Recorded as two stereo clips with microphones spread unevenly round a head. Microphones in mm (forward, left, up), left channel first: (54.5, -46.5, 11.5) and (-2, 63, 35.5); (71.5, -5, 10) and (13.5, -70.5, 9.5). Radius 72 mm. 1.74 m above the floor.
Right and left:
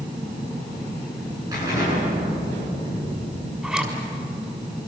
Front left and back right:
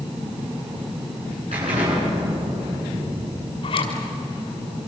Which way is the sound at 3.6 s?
40° left.